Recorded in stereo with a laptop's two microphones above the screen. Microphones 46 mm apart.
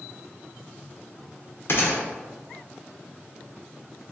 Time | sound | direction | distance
1.7 | a gunshot | 55° left (ahead or behind) | 0.7 m